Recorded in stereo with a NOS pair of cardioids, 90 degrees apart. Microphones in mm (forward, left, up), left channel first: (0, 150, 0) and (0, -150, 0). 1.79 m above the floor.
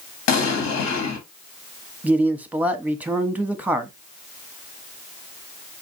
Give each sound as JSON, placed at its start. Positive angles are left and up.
{"t": 0.3, "sound": "an explosion", "azimuth_deg": 60, "distance_m": 1.5}
{"t": 2.0, "sound": "a man speaking", "azimuth_deg": -5, "distance_m": 0.9}